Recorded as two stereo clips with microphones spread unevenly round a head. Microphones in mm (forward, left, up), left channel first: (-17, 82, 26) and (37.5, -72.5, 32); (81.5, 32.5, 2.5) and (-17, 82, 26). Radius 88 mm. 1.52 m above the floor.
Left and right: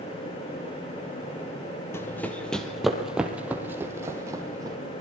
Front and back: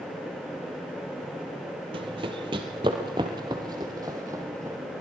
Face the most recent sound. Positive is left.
turn(degrees=-140)